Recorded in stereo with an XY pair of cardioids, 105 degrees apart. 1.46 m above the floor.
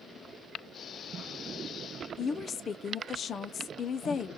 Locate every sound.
2.2 s a woman speaking: 45° left, 0.6 m